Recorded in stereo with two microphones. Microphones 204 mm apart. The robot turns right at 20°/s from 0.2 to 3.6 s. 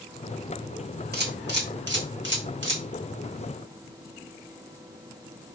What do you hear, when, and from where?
1.1 s a camera shutter: 55° right (ahead or behind), 0.8 m; by 2.8 s 70° right (ahead or behind), 0.8 m